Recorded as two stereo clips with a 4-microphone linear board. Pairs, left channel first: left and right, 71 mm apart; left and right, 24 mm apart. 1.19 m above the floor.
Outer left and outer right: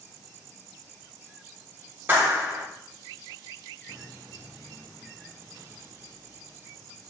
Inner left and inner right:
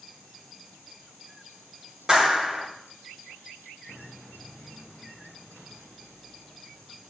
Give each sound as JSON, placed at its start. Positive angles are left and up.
{"t": 2.1, "sound": "a clap", "side_deg": -25, "distance_m": 5.5}